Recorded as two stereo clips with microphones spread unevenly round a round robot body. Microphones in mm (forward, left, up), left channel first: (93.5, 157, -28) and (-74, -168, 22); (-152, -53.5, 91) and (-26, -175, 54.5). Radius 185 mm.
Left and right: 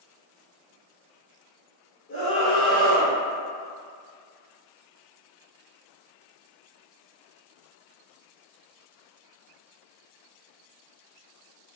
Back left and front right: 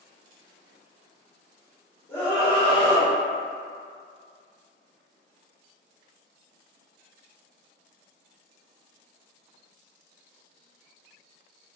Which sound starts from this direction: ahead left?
A scream, at 2.1 s.